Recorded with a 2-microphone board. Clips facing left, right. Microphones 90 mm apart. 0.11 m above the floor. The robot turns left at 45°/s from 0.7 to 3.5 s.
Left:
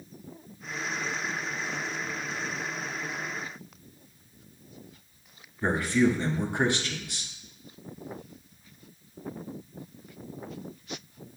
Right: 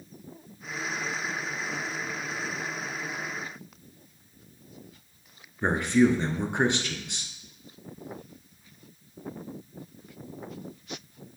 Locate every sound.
5.6 s a man speaking: 20° right (ahead or behind), 1.1 m